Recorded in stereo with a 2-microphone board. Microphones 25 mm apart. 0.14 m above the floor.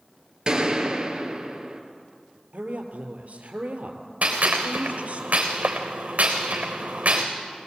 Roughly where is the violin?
No violin in this recording.